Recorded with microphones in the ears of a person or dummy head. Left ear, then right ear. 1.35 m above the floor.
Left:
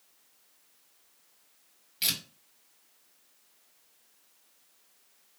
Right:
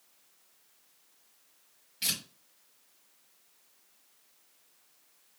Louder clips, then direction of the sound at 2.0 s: Left 2 dB; 25° left (ahead or behind).